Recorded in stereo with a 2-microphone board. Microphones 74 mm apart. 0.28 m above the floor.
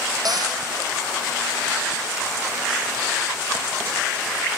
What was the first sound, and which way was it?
A cupboard door, 65° right (ahead or behind).